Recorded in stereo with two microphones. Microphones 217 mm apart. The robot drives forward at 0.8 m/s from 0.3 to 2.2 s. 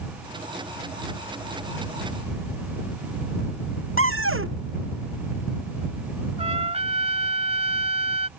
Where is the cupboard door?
75° right (ahead or behind).